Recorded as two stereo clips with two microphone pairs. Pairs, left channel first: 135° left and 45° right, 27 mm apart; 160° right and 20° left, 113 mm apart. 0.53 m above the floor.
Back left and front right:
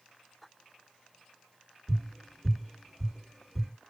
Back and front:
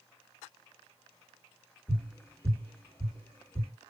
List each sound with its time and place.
1.9 s tapping: 110° right, 1.6 m